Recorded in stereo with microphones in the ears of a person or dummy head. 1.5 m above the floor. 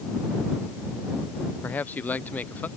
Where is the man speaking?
10° left (ahead or behind).